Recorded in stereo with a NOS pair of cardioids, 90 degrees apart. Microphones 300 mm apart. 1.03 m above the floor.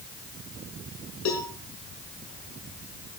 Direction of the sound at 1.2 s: 65° left.